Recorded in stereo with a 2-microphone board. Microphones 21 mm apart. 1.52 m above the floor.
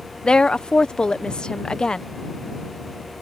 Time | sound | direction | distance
0.2 | a woman speaking | 45° left (ahead or behind) | ?